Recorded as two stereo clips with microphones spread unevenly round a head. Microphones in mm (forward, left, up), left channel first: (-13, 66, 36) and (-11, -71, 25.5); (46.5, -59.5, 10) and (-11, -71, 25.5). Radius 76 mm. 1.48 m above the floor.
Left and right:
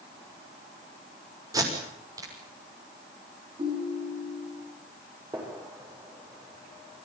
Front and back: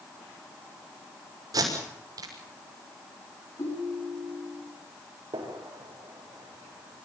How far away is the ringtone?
About 7.5 m.